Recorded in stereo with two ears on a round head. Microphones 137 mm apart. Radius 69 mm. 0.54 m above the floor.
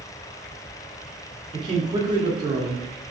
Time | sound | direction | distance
1.5 | a man speaking | 25° right (ahead or behind) | 0.6 m